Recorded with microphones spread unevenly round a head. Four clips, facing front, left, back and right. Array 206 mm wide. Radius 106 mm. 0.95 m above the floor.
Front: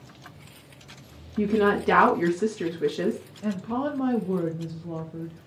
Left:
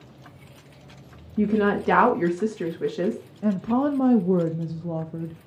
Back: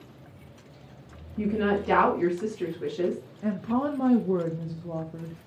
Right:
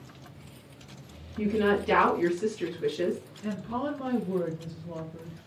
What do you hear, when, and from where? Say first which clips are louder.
1.4 s a woman speaking: left 4 dB, front 4 dB; 65° left, 1.6 m
3.4 s a woman speaking: left 10 dB, back 1 dB; 85° left, 0.5 m